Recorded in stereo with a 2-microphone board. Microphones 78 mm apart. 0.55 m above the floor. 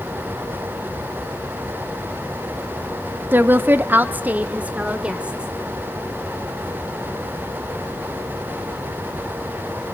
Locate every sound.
3.3 s a woman speaking: 25° right (ahead or behind), 0.8 m; by 5.5 s 15° right (ahead or behind), 2 m